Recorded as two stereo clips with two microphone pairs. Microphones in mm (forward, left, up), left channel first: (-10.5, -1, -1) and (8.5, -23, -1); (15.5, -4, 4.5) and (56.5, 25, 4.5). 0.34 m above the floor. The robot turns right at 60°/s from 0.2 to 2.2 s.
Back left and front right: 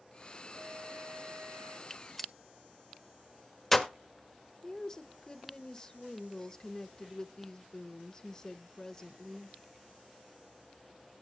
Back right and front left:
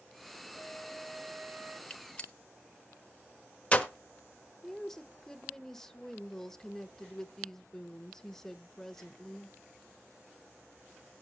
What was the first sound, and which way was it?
A flute, 95° right.